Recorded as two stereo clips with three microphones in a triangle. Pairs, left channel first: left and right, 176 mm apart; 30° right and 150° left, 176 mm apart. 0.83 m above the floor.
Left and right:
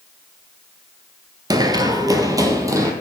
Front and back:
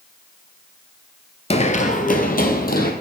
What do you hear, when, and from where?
1.5 s running footsteps: 35° right, 1.0 m; by 2.9 s 20° right, 2 m